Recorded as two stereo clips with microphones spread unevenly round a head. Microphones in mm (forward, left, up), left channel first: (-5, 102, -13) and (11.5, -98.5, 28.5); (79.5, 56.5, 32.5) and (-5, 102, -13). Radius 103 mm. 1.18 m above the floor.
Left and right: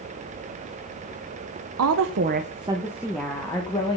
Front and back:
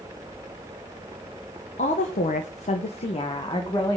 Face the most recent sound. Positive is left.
turn(degrees=25)